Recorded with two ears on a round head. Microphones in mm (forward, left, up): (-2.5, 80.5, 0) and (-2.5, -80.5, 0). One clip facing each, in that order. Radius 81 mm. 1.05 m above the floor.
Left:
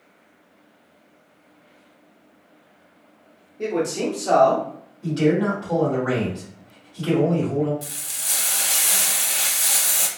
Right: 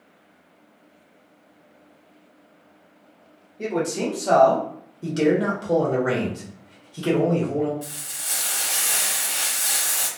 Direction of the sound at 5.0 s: 60° right (ahead or behind).